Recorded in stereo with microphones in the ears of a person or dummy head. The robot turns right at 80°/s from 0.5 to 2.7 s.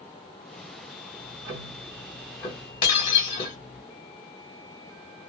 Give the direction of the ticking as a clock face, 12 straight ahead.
3 o'clock.